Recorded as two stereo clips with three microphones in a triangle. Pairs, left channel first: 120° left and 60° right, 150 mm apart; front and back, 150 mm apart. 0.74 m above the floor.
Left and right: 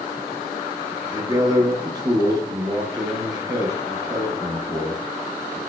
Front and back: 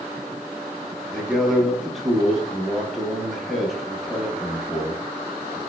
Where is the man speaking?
90° right, 0.7 m.